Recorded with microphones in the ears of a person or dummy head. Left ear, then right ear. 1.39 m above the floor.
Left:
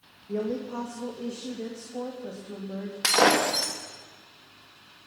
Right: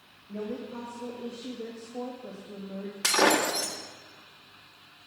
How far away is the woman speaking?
About 2.5 m.